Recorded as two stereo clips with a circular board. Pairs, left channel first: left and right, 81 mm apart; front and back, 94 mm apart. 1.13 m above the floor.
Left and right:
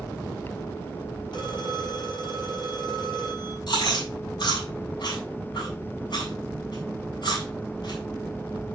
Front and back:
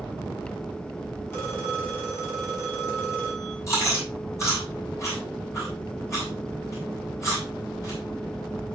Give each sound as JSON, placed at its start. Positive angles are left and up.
{"t": 1.3, "sound": "a phone ringing", "azimuth_deg": 65, "distance_m": 6.5}
{"t": 3.7, "sound": "chewing", "azimuth_deg": 60, "distance_m": 8.0}